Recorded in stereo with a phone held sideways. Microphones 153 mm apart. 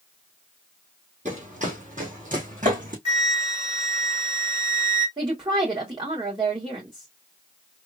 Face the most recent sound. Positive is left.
turn(degrees=-30)  # may be behind; listen again after turning